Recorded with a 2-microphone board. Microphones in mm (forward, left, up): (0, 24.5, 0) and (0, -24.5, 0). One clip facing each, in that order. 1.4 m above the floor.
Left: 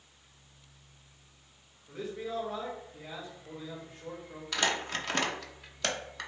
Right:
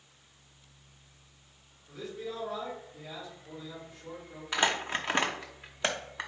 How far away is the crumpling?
About 0.6 m.